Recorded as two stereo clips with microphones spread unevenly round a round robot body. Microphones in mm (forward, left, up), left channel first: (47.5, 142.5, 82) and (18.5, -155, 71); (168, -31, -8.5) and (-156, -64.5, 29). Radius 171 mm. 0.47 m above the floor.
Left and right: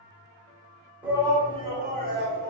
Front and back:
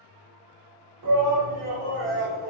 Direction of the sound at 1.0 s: 175° right.